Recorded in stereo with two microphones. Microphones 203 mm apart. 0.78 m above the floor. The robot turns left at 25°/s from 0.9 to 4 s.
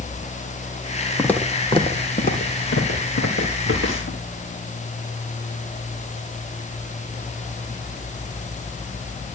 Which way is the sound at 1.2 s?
5° left (ahead or behind).